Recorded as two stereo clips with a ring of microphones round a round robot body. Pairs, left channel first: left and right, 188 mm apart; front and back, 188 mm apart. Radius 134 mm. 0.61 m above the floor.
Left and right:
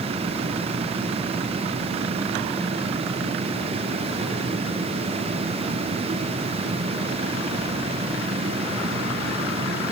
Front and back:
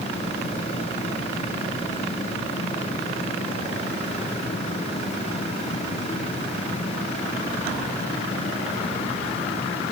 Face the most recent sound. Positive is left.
No sound to turn to.